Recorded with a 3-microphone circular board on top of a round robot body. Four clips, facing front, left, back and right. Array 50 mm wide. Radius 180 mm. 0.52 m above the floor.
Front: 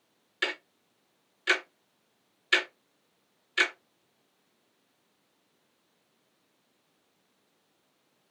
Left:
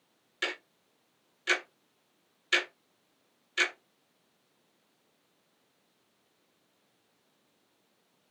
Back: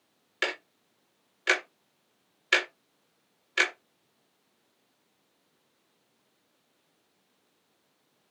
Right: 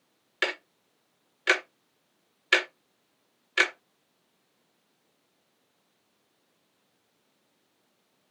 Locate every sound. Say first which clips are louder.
0.4 s ticking: right 5 dB, back 1 dB; 125° right, 0.5 m